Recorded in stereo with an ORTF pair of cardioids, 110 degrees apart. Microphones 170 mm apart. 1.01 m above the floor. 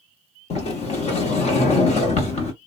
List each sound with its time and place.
0.5 s a sliding door: 40° left, 0.9 m